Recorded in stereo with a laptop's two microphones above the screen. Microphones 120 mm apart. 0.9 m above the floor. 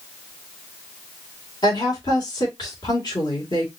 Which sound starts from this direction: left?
A woman speaking, at 1.6 s.